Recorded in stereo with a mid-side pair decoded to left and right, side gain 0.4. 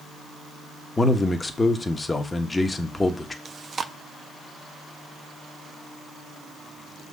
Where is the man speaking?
25° left, 1.4 m.